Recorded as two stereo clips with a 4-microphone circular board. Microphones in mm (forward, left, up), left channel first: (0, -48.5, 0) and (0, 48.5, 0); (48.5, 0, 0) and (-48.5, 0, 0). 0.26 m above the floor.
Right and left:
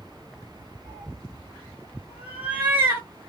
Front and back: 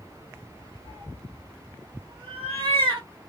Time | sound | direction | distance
0.8 | a cat meowing | 165° right | 1.2 m